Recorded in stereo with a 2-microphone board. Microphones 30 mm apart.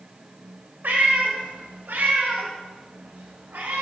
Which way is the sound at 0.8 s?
75° right (ahead or behind).